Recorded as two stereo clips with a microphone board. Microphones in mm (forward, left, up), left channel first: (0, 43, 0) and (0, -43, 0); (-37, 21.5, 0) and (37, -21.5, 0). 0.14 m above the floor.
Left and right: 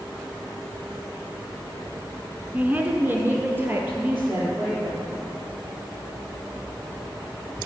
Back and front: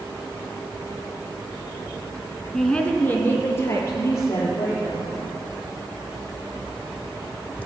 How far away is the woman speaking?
About 1.0 m.